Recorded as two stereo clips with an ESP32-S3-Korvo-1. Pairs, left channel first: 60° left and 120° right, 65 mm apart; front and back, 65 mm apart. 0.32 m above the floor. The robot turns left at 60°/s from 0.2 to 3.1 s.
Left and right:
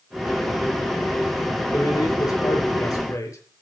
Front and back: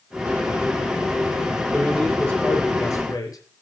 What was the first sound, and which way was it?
A man speaking, 115° left.